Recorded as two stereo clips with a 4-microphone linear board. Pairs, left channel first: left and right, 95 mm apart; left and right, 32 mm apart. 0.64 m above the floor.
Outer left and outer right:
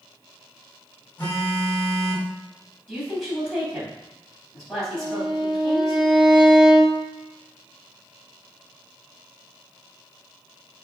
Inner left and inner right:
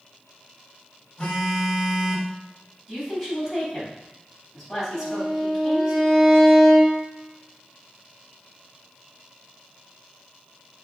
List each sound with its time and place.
1.2 s a phone buzzing: 20° left (ahead or behind), 2.5 m
2.9 s a woman speaking: centre (ahead or behind), 4 m
4.9 s a violin: centre (ahead or behind), 1.9 m